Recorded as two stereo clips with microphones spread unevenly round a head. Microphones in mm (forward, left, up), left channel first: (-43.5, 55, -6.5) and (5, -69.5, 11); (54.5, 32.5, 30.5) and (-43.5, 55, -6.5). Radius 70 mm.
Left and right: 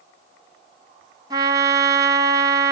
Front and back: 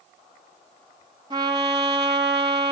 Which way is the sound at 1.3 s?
125° right.